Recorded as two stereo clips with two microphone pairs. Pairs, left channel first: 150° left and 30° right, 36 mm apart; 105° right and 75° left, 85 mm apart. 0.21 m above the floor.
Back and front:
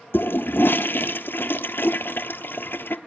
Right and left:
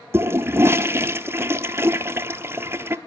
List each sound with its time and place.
0.1 s a toilet flushing: 135° left, 0.8 m